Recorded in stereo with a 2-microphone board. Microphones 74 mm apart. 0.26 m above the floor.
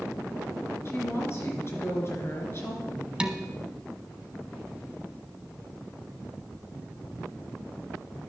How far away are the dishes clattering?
About 1.0 m.